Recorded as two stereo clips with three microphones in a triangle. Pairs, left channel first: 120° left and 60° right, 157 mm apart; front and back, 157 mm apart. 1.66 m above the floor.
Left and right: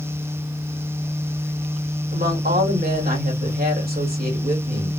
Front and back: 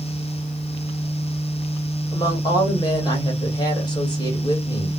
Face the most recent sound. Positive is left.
turn(degrees=-60)